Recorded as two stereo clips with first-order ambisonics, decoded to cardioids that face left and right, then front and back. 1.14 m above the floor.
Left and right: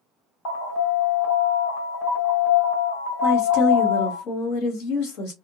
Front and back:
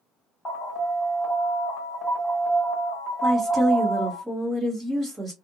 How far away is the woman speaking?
About 1.7 m.